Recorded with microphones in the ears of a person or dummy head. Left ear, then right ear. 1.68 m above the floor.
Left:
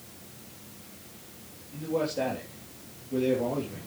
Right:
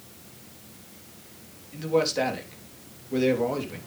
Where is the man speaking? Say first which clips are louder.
Right 5 dB; 60° right (ahead or behind), 3.5 m.